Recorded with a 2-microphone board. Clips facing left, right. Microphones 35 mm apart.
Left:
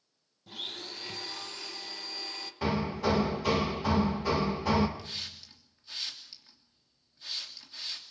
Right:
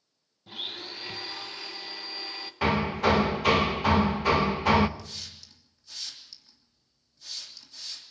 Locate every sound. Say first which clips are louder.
0.5 s a blender: right 3 dB; 25° right (ahead or behind), 1.4 m
2.6 s hammering: right 5 dB; 65° right (ahead or behind), 1.1 m
5.0 s a hiss: left 2 dB; 30° left (ahead or behind), 3 m